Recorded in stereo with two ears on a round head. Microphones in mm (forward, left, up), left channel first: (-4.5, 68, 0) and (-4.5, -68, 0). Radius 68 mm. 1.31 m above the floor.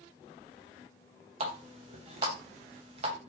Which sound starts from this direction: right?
A running tap, at 1.4 s.